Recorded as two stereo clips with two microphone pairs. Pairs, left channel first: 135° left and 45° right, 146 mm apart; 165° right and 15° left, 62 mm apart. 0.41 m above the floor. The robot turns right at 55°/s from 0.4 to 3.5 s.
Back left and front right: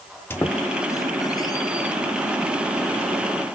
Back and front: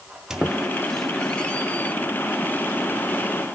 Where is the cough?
I don't hear a cough.